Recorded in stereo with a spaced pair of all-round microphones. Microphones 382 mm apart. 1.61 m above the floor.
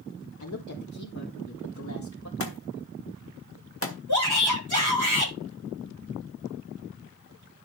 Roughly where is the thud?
Left.